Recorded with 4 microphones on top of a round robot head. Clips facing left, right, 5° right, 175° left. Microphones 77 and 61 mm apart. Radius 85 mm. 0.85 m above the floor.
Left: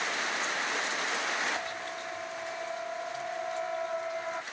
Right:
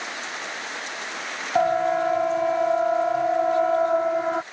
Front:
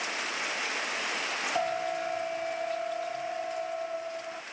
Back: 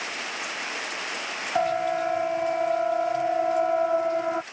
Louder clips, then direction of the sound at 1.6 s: Right 17 dB, back 8 dB; 110° right.